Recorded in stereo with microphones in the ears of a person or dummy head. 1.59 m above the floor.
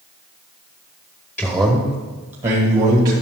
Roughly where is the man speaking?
Centre.